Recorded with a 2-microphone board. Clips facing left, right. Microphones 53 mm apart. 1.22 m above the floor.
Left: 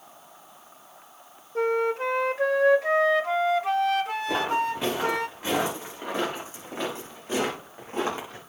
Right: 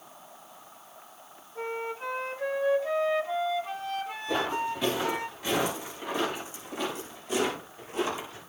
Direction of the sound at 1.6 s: 80° left.